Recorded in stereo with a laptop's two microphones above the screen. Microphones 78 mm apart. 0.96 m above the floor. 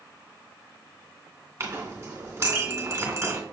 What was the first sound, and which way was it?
A clink, 30° right (ahead or behind).